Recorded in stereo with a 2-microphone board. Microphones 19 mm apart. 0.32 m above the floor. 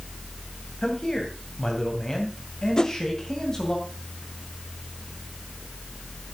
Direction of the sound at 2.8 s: 35° left (ahead or behind).